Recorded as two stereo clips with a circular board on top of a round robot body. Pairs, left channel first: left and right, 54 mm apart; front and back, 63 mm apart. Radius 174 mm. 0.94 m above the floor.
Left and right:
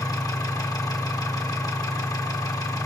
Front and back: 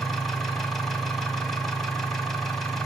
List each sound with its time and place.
0.0 s an engine running: 85° left, 1.5 m